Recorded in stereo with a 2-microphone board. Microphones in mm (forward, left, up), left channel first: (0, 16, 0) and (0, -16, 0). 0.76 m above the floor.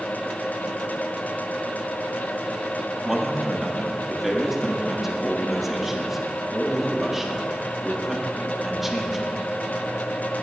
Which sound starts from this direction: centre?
A man speaking, at 3.0 s.